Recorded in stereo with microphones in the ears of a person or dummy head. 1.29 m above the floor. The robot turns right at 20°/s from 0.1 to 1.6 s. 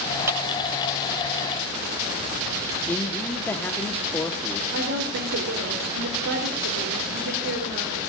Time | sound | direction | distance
0.3 | a clap | 10° right (ahead or behind) | 6.5 m
2.9 | a man speaking | 5° left (ahead or behind) | 1.2 m
4.7 | a woman speaking | 65° right (ahead or behind) | 3.5 m